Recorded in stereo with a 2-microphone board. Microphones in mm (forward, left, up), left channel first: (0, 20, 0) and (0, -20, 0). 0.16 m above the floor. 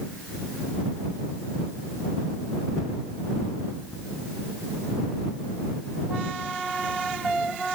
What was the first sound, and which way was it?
Only background noise.